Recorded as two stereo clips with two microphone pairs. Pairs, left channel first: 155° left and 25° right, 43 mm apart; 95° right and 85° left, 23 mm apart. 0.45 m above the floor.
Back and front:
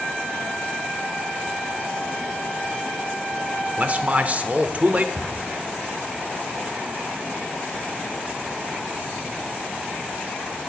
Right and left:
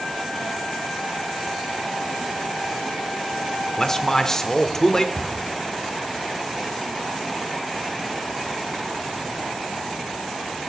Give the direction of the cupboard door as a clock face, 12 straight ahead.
1 o'clock.